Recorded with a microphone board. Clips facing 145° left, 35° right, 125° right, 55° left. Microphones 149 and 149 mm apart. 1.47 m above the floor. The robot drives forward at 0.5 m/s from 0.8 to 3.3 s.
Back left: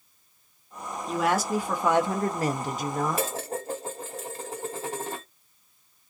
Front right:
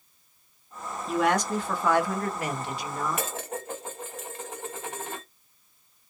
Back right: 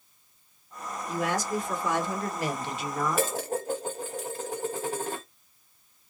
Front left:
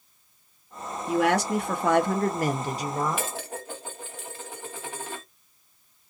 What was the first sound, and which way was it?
A woman speaking, 55° left.